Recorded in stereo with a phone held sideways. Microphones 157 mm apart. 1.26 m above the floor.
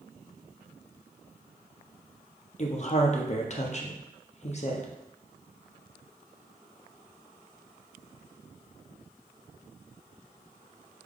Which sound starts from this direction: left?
A woman speaking, at 2.6 s.